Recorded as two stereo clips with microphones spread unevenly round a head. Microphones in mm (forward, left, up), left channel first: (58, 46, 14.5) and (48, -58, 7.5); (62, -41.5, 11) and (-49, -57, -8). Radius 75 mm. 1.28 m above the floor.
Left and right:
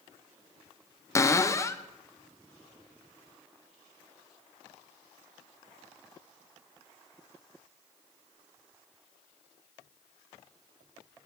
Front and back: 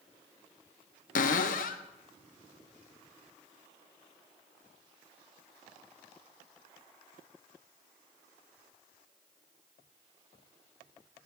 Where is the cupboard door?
20° left, 0.5 m.